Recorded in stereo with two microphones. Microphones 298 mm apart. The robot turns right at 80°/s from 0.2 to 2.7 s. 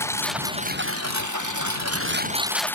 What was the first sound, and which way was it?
A lawn mower, 10° left (ahead or behind).